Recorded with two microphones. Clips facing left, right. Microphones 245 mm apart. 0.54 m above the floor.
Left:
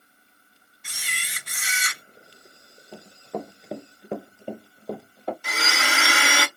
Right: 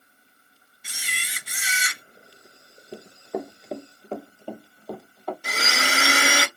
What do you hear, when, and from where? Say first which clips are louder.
0.8 s a camera shutter: right 1 dB; 5° right (ahead or behind), 1.5 m
2.9 s running footsteps: right 3 dB; 20° right (ahead or behind), 0.7 m; by 5.3 s 25° left (ahead or behind), 1.2 m
5.4 s a blender: right 1 dB; 40° right (ahead or behind), 0.8 m